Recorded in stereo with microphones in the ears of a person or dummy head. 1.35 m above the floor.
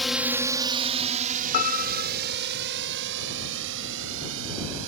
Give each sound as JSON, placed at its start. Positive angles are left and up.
{"t": 0.0, "sound": "a drone", "side_deg": 0}
{"t": 1.5, "sound": "a piano", "side_deg": 40}